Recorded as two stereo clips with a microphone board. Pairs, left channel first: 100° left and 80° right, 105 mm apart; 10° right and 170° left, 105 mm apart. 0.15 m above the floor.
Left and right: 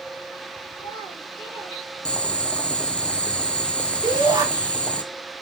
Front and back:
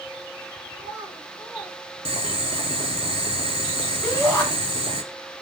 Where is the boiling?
Straight behind, 0.7 m.